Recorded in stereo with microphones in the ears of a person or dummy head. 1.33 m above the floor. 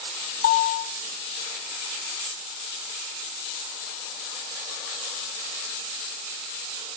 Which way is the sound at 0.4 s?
60° left (ahead or behind).